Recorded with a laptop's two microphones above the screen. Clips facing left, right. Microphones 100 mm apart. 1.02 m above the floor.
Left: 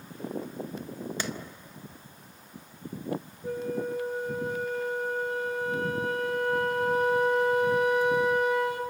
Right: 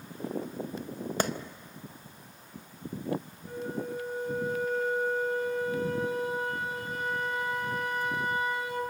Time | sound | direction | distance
1.2 | a clap | 45° right (ahead or behind) | 0.6 m
3.4 | a flute | 70° left (ahead or behind) | 2 m